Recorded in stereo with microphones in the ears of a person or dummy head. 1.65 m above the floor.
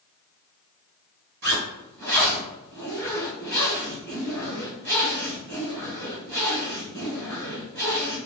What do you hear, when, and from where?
1.4 s a zipper: 50° right (ahead or behind), 1.9 m